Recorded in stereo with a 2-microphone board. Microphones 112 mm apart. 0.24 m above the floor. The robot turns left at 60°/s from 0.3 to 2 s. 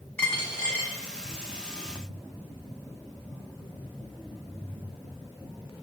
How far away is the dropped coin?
About 1.1 m.